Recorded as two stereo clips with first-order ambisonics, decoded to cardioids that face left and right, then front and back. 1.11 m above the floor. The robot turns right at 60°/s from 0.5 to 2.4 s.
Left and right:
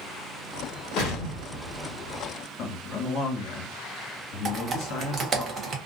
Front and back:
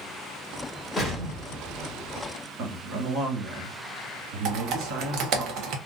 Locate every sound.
1.0 s an explosion: 85° left, 1.1 m; by 2.3 s 170° left, 1.1 m
2.6 s a man speaking: 135° left, 1.3 m
4.5 s typing on a keyboard: 150° right, 0.6 m